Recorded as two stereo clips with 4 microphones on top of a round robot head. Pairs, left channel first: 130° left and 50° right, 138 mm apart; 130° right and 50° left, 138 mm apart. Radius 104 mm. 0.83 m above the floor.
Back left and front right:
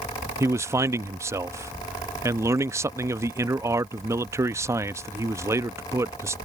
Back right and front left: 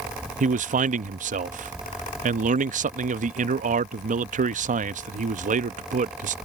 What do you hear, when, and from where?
0.4 s a man speaking: 25° left